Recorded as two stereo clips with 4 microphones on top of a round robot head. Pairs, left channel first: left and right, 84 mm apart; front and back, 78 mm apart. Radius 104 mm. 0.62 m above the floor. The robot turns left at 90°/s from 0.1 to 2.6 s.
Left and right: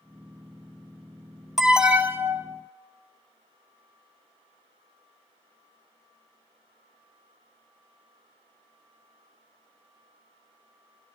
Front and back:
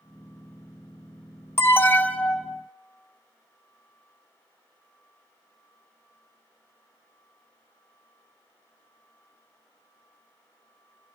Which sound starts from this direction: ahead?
An alarm, at 1.6 s.